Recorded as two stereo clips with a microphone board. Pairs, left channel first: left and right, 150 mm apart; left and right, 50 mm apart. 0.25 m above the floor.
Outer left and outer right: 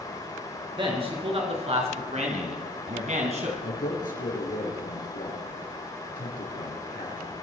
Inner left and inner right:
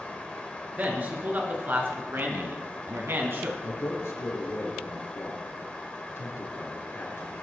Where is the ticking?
I don't hear ticking.